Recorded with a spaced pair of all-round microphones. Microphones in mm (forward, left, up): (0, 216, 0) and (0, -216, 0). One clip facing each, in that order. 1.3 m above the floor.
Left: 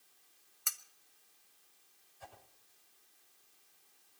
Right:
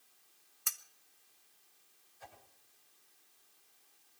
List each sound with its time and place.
0.7 s cutlery clinking: centre (ahead or behind), 0.6 m
2.2 s a whoosh: 50° left (ahead or behind), 8 m